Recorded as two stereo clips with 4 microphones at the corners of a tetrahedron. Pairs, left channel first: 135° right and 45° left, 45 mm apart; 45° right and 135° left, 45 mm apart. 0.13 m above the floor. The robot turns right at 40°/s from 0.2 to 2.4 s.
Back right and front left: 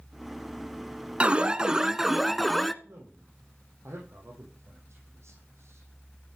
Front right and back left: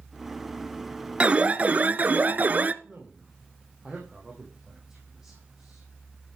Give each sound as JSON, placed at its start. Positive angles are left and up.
{"t": 1.2, "sound": "an alarm", "azimuth_deg": 90, "distance_m": 0.9}
{"t": 2.8, "sound": "a man speaking", "azimuth_deg": 60, "distance_m": 6.5}